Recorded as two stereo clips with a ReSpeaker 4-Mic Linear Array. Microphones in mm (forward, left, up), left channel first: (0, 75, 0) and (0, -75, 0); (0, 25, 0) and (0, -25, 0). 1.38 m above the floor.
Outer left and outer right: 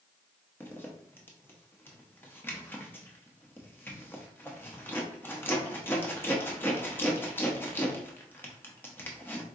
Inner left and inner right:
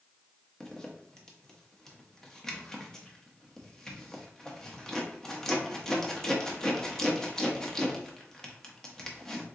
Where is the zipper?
15° left (ahead or behind), 0.8 m.